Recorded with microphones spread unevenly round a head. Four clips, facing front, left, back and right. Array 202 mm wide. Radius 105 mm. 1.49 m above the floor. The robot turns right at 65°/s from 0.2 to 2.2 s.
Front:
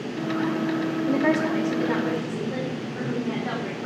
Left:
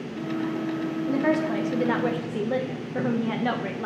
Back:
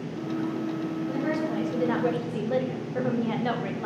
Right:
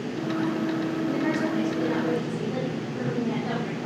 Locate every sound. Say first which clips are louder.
1.1 s a woman speaking: left 5 dB, front 7 dB; 20° left, 1.2 m; by 3.9 s 90° left, 1.2 m